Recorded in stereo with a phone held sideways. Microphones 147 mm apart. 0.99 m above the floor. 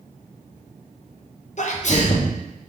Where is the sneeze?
55° left (ahead or behind), 0.6 m.